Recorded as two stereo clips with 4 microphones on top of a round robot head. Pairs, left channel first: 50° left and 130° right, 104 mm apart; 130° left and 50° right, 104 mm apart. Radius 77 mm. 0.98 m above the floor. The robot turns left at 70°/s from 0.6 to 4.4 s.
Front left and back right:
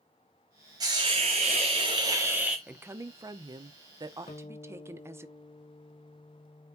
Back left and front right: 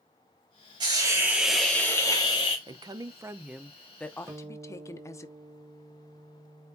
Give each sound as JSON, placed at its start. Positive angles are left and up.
{"t": 0.8, "sound": "a hiss", "azimuth_deg": -85, "distance_m": 0.9}
{"t": 2.7, "sound": "a woman speaking", "azimuth_deg": -60, "distance_m": 0.7}
{"t": 4.3, "sound": "a guitar", "azimuth_deg": 15, "distance_m": 1.0}